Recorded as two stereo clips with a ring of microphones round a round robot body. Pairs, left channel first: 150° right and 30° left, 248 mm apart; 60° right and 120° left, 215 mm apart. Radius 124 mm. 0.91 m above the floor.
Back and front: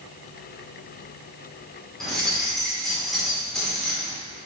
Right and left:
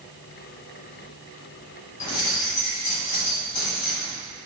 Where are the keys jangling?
60° right, 2 m.